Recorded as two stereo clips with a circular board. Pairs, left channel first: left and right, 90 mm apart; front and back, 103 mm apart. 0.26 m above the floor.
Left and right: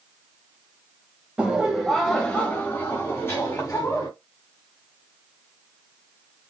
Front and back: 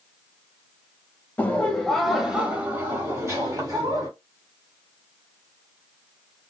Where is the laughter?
35° right, 1.0 m; by 4.1 s 140° left, 1.5 m.